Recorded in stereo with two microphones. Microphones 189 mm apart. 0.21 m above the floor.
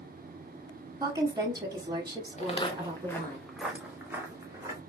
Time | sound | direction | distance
1.0 | a woman speaking | 20° right (ahead or behind) | 1.0 m
2.4 | footsteps | 40° left (ahead or behind) | 1.2 m